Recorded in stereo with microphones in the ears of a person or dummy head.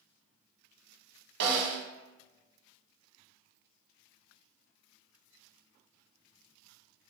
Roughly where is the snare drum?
Right.